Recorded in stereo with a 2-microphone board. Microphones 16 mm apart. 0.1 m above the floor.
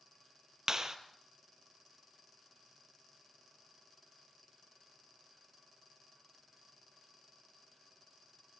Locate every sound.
0.7 s a clap: 35° right (ahead or behind), 1.7 m